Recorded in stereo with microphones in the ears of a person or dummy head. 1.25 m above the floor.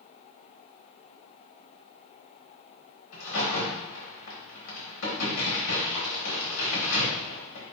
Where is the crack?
80° left, 3.5 m.